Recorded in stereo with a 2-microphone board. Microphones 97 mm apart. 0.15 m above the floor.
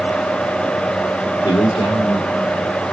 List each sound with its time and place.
1.4 s a man speaking: 50° left (ahead or behind), 3 m; by 2.7 s 55° left (ahead or behind), 4.5 m